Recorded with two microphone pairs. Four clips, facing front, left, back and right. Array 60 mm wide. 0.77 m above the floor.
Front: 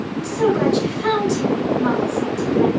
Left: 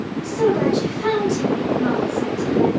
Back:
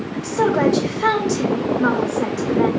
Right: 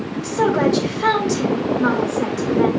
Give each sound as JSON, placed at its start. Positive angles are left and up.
{"t": 0.1, "sound": "a woman speaking", "azimuth_deg": -150, "distance_m": 3.0}